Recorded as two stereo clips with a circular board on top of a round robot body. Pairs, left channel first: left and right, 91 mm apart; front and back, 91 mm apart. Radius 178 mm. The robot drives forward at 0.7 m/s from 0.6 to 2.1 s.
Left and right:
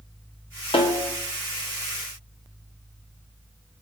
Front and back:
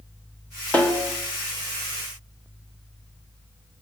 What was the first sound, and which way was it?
A snare drum, 75° left.